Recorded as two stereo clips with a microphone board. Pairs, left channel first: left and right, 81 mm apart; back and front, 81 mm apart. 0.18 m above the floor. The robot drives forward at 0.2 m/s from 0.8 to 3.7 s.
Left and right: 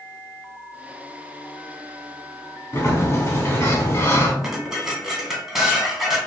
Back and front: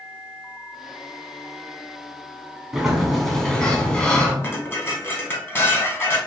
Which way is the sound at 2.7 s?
80° left.